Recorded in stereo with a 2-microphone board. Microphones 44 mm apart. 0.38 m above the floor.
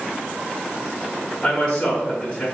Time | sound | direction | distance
1.4 | a man speaking | 15° left (ahead or behind) | 1.0 m